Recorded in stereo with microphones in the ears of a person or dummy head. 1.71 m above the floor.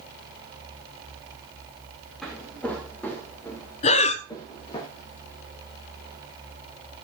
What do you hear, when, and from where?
2.2 s footsteps: centre (ahead or behind), 3 m; by 4.8 s 25° left (ahead or behind), 3 m
3.8 s breathing: 35° left (ahead or behind), 0.7 m